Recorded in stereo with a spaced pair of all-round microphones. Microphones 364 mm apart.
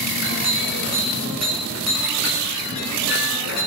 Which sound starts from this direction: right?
A clink, at 0.1 s.